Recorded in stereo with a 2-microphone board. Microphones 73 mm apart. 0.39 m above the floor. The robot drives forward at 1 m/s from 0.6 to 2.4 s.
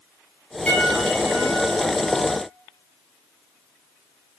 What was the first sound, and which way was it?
A piano, 15° left (ahead or behind).